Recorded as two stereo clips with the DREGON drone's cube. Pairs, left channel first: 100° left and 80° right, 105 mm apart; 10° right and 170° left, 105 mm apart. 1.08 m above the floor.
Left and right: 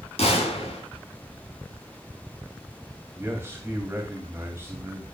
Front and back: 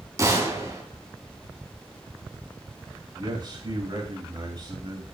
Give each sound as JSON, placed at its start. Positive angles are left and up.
{"t": 0.2, "sound": "a gunshot", "azimuth_deg": 110, "distance_m": 3.5}
{"t": 3.1, "sound": "a man speaking", "azimuth_deg": -150, "distance_m": 2.5}